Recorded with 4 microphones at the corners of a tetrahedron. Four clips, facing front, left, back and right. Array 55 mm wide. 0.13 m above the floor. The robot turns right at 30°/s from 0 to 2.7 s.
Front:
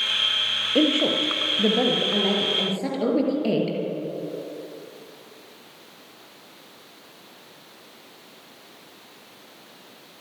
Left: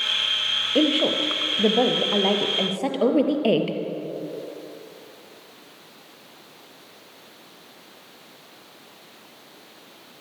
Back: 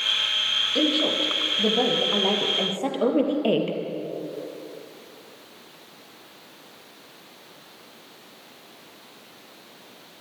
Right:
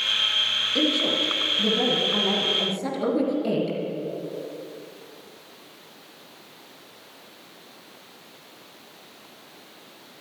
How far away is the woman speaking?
About 3.5 m.